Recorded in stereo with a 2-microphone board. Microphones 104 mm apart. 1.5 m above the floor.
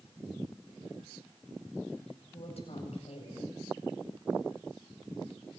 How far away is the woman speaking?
About 8 m.